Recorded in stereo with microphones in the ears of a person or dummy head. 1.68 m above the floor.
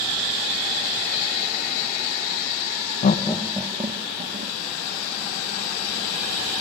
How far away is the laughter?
About 0.9 m.